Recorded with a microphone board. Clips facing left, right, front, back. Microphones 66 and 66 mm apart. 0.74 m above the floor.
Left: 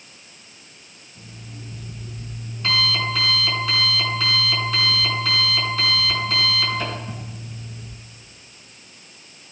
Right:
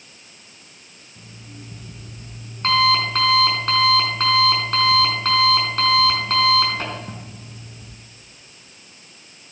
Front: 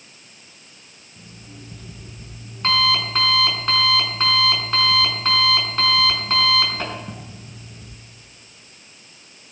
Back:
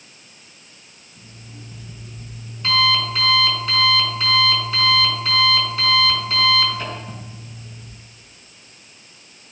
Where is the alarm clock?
50° right, 4.5 m.